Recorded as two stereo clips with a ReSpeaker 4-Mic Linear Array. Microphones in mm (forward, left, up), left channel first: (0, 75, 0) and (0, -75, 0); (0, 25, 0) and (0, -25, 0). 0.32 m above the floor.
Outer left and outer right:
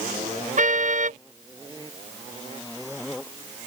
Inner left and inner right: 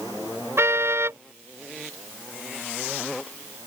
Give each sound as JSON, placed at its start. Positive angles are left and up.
{"t": 0.6, "sound": "a car horn", "side_deg": -60}